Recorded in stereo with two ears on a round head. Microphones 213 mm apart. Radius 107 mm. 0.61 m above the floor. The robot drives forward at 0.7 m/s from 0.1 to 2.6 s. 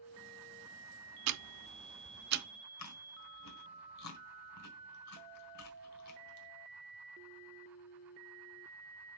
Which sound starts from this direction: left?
Chewing, at 2.8 s.